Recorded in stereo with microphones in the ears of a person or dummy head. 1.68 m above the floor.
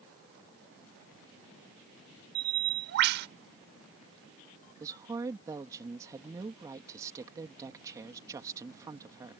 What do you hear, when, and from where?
2.4 s a bird: 55° right (ahead or behind)
4.8 s a woman speaking: 20° right (ahead or behind)